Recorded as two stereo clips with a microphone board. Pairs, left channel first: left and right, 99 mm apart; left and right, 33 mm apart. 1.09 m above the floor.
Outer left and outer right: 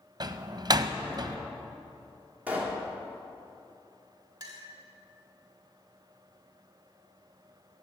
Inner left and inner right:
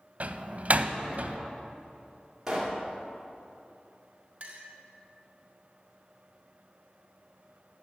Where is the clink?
40° right (ahead or behind), 1.7 m.